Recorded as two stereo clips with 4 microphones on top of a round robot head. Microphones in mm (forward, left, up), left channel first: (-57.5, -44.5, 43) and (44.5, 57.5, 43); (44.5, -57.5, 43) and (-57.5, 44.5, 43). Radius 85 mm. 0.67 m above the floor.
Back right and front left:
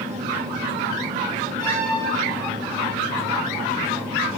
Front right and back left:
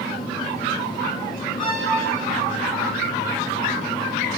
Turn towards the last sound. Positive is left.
turn(degrees=160)